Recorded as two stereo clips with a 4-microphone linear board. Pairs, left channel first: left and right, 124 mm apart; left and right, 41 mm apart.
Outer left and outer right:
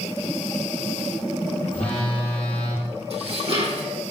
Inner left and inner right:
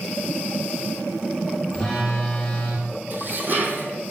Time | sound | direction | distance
1.7 | a phone buzzing | 15° left (ahead or behind) | 7 m
3.1 | dishes clattering | 55° right (ahead or behind) | 4 m